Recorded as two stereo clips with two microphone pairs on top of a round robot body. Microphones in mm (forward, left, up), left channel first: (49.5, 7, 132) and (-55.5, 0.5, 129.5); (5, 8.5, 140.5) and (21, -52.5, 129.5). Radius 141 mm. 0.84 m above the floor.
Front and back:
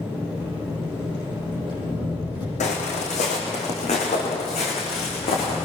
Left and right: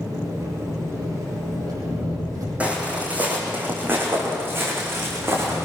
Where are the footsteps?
Straight ahead, 4 m; by 5.7 s 25° right, 5 m.